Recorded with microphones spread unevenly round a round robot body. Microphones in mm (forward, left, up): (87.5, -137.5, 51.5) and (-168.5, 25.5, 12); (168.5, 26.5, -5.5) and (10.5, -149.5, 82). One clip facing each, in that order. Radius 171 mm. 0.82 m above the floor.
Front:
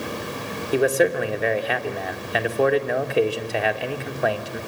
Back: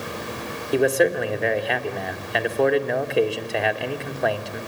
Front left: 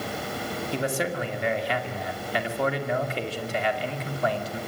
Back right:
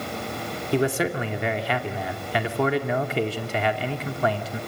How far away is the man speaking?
About 3 m.